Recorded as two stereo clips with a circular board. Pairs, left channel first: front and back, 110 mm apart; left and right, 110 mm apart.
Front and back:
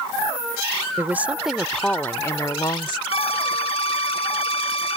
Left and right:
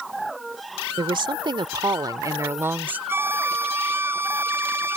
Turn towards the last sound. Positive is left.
turn(degrees=-20)